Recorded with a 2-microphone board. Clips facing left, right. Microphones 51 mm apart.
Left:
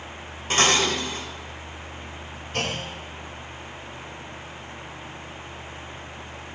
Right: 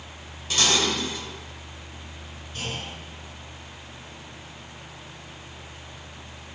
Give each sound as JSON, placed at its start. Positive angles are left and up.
{"t": 0.5, "sound": "dishes clattering", "side_deg": 40, "distance_m": 3.5}
{"t": 2.5, "sound": "a clunk", "side_deg": 75, "distance_m": 2.5}